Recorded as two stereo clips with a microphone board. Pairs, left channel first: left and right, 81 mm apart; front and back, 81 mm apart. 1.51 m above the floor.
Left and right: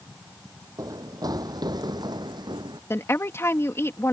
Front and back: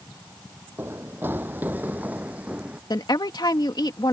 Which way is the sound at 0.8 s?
120° right.